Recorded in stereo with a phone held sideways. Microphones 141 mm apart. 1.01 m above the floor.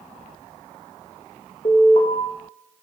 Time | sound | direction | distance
1.6 | an alarm | 45° left (ahead or behind) | 1.9 m